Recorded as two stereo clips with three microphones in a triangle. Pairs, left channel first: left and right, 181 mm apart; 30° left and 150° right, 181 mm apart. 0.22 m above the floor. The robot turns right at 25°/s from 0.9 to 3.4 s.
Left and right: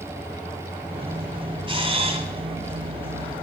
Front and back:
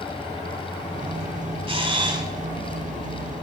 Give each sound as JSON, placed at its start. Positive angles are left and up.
{"t": 1.7, "sound": "a camera shutter", "azimuth_deg": -120, "distance_m": 1.7}